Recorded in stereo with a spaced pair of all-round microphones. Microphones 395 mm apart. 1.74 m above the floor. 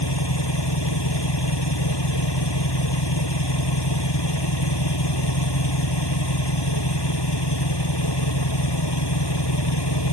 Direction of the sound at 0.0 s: 80° left.